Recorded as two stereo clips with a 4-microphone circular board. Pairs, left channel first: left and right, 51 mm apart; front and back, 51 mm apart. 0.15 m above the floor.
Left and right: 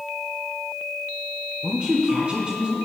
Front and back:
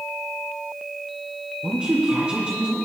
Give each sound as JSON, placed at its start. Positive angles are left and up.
{"t": 1.6, "sound": "a woman speaking", "azimuth_deg": -135, "distance_m": 1.8}